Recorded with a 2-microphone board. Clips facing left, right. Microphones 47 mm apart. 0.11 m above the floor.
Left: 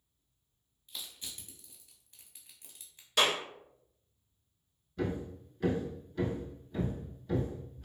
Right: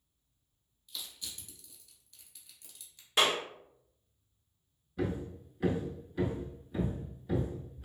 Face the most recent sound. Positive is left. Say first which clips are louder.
# even
turn(degrees=-10)  # may be behind; listen again after turning